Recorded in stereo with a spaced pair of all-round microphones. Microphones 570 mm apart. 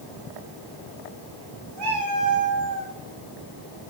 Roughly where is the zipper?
No zipper in this recording.